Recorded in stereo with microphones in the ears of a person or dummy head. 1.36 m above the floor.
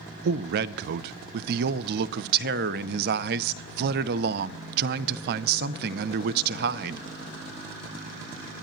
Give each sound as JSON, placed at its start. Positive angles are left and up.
{"t": 0.2, "sound": "a man speaking", "side_deg": -60, "distance_m": 0.5}